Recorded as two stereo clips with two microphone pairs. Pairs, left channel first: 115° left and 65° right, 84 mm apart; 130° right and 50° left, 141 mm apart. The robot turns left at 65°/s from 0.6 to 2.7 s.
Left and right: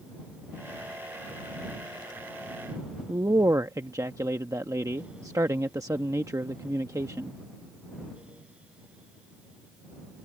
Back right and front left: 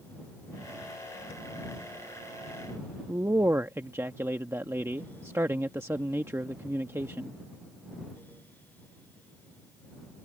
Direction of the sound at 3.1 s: 20° right.